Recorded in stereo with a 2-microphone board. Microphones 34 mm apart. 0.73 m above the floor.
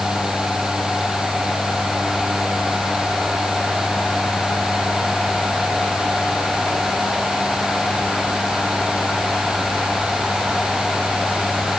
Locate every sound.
Only background noise.